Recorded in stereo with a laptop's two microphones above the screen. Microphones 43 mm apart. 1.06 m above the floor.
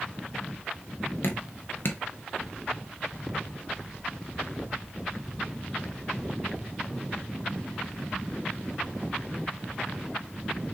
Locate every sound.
1.2 s dripping: 55° left (ahead or behind), 0.6 m